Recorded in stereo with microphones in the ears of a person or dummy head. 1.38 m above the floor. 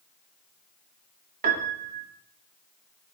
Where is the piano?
45° right (ahead or behind), 1.6 m.